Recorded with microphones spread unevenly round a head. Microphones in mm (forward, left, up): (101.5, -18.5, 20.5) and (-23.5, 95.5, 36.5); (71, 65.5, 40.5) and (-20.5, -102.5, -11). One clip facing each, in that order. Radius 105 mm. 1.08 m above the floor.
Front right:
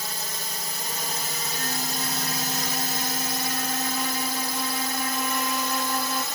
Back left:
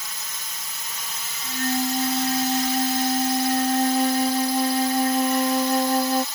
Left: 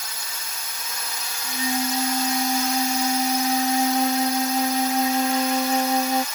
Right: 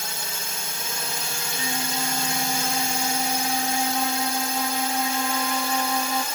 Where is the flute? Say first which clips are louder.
Back left 11 dB, left 7 dB; 105° left.